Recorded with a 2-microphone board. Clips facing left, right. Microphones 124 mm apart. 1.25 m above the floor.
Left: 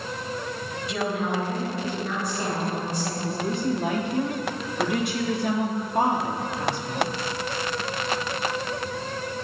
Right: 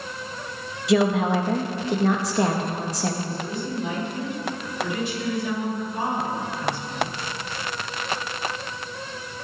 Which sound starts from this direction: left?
A woman speaking, at 3.2 s.